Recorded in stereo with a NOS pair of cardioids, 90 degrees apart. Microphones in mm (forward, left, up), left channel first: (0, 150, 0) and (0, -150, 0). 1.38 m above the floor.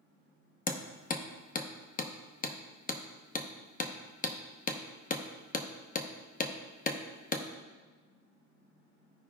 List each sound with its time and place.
0.7 s hammering: 30° left, 1.0 m